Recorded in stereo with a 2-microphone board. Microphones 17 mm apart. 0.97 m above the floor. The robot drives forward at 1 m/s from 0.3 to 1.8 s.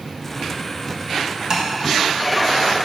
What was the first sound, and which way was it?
Tapping, 45° right (ahead or behind).